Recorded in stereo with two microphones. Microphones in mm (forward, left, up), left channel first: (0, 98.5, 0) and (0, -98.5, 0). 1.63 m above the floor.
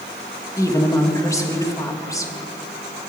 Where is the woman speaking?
15° left (ahead or behind), 2.5 m.